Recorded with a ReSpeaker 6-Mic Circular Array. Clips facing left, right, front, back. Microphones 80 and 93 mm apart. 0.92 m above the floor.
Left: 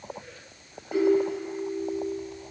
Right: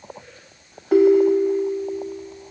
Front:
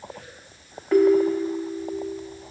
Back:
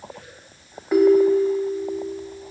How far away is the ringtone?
About 0.6 m.